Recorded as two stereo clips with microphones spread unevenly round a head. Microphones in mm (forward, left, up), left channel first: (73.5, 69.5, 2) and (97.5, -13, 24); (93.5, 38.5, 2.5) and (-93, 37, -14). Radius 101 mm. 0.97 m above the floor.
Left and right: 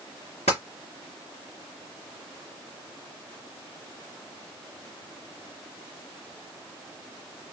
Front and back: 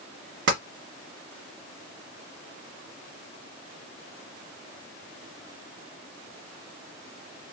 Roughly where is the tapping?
Behind.